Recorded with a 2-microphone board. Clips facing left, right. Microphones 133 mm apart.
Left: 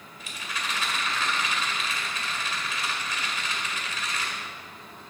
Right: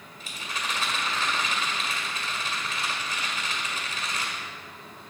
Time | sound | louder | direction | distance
0.2 | a rattle | even | 35° right (ahead or behind) | 1.6 m